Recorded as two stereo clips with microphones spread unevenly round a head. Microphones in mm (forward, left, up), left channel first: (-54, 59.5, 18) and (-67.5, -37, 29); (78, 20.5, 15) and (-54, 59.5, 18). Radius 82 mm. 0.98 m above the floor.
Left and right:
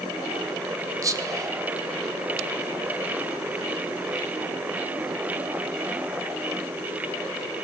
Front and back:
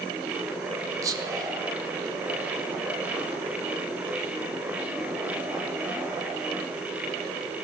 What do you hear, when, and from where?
1.0 s whispering: 140° right, 1.0 m